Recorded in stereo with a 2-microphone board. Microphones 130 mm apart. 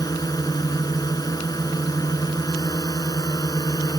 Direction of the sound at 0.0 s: 30° left (ahead or behind).